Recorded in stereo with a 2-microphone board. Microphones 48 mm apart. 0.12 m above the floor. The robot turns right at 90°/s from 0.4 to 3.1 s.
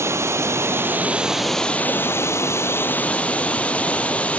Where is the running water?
90° right, 0.8 m; by 4.4 s 150° left, 0.8 m.